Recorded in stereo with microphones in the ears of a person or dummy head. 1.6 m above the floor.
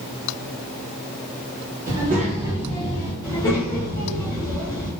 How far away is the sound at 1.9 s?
About 1.1 m.